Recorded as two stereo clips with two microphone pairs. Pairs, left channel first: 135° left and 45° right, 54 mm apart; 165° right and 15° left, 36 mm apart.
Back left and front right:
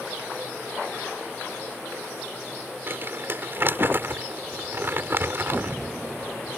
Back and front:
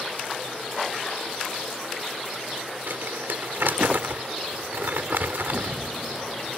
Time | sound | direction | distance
2.9 | crumpling | straight ahead | ?